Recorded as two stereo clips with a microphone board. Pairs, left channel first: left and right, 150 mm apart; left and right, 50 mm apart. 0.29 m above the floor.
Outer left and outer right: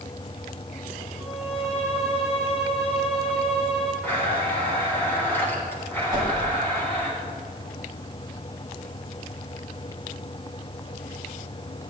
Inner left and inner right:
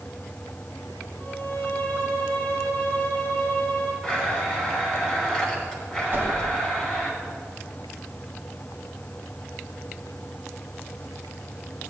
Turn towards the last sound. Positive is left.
turn(degrees=-30)  # may be behind; listen again after turning